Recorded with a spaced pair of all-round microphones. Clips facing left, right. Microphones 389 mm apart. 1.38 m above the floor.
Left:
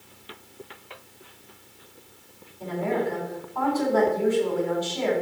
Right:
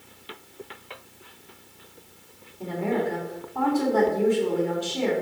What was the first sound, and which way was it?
A woman speaking, 45° right (ahead or behind).